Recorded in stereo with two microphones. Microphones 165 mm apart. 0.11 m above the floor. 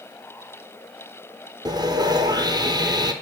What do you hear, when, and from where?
1.6 s sawing: 25° right (ahead or behind), 0.8 m